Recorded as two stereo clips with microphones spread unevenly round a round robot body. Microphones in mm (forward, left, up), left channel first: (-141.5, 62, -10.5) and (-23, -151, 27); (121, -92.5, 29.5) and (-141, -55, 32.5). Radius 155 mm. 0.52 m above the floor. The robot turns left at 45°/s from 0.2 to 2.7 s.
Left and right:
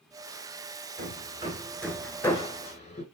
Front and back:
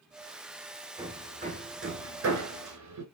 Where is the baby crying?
No baby crying in this recording.